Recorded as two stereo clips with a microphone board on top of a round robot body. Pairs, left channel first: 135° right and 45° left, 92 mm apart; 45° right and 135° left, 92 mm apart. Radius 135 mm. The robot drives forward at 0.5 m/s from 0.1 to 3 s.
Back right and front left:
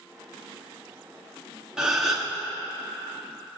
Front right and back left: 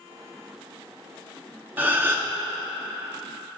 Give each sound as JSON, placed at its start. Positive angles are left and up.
{"t": 1.8, "sound": "a gasp", "azimuth_deg": 115, "distance_m": 1.4}